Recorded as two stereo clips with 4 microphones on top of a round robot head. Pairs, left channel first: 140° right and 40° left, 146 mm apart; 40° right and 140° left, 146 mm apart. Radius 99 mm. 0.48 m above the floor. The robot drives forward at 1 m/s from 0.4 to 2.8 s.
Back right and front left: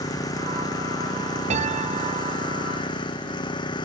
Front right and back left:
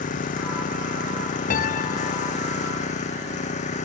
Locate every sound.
0.0 s an engine running: 75° right; by 3.9 s 80° right
1.5 s a piano: 5° right